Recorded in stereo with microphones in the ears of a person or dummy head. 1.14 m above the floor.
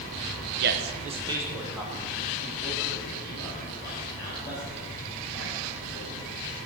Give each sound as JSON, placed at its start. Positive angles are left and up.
{"t": 0.6, "sound": "a man speaking", "side_deg": -50, "distance_m": 0.9}